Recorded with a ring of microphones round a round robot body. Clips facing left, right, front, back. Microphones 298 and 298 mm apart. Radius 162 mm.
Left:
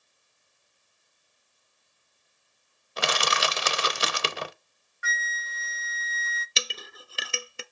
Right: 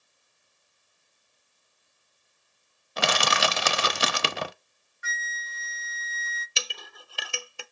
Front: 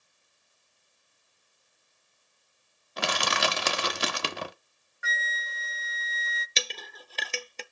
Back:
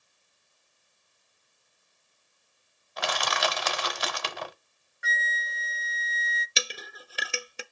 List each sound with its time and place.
3.0 s crushing: 65° right, 0.7 m
5.0 s a flute: 90° left, 0.5 m
6.6 s a clink: 115° left, 0.6 m